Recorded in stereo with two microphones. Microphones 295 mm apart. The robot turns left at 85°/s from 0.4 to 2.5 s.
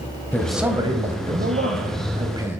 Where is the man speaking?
10° left, 1.3 m; by 2.6 s 170° right, 1.3 m.